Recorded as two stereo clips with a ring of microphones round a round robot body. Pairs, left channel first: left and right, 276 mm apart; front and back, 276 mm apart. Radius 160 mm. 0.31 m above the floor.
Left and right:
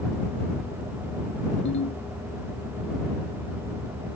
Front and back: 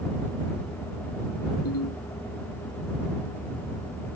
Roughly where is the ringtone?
Ahead left.